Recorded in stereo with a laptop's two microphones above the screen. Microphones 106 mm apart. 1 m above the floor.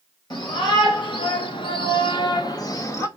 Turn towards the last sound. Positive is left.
turn(degrees=25)  # may be behind; listen again after turning